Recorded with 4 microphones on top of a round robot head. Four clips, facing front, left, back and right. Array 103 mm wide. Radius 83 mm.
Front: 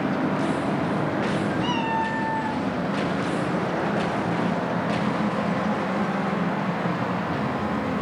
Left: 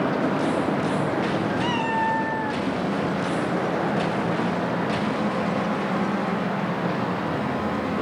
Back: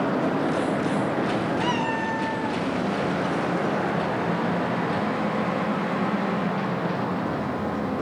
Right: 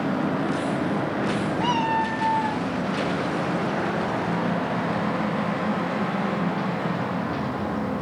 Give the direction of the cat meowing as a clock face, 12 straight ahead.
7 o'clock.